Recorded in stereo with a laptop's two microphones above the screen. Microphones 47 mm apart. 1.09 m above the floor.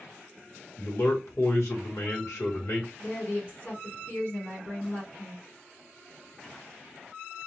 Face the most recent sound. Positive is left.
turn(degrees=50)  # may be behind; listen again after turning